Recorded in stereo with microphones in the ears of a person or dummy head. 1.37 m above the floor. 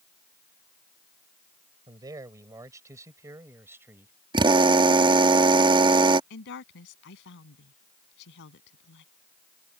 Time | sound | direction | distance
1.9 | a man speaking | 20° right (ahead or behind) | ?
4.3 | a drill | 20° right (ahead or behind) | ?
6.3 | a woman speaking | 60° left (ahead or behind) | ?